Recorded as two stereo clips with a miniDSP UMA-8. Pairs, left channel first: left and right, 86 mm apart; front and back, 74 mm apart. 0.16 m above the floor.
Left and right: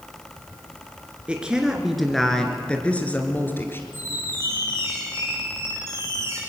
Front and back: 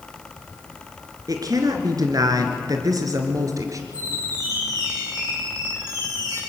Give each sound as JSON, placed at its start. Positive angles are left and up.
{"t": 1.3, "sound": "a woman speaking", "azimuth_deg": -165, "distance_m": 2.5}
{"t": 3.9, "sound": "a squeak", "azimuth_deg": -150, "distance_m": 7.5}